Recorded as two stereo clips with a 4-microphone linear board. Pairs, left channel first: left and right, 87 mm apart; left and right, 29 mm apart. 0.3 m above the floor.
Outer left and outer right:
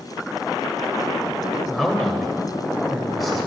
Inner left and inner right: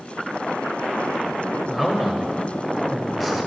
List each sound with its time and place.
1.7 s a man speaking: centre (ahead or behind), 0.9 m